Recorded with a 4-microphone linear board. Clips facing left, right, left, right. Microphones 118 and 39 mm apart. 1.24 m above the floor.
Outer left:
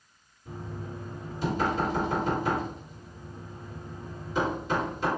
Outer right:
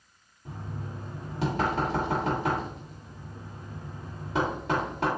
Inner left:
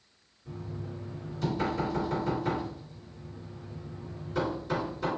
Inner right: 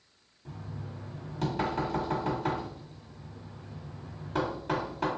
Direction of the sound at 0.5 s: 75° right (ahead or behind).